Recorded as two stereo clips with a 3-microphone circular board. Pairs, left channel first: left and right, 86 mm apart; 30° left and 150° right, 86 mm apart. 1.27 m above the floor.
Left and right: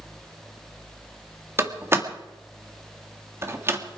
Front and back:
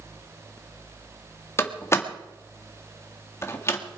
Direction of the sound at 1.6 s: 30° right.